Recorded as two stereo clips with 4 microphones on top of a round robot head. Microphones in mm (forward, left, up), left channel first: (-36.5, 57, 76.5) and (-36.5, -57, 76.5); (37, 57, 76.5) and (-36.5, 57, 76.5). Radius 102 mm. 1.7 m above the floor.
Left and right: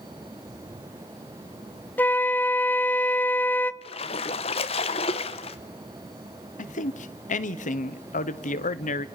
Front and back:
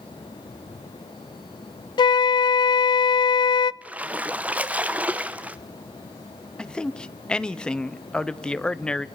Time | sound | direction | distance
2.0 | a flute | 15° left | 0.5 m
3.8 | a splash | 115° left | 0.9 m
6.6 | a man speaking | 80° left | 1.3 m